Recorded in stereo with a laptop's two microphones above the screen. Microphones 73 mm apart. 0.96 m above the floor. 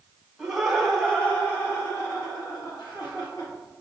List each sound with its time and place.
0.4 s laughter: centre (ahead or behind), 1.1 m; by 3.5 s 70° left (ahead or behind), 1.4 m